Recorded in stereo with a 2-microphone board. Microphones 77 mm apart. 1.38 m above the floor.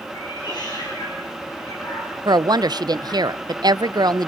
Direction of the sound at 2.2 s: 65° right (ahead or behind).